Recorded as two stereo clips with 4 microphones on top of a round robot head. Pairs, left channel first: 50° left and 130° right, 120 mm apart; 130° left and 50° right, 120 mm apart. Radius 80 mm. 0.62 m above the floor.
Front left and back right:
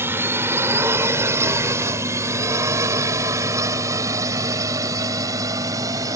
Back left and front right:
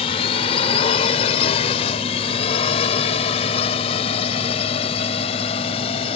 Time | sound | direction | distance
0.0 | a drone | 160° left | ?